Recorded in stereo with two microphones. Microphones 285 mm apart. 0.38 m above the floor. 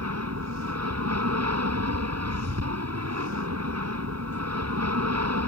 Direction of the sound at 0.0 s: 60° right (ahead or behind).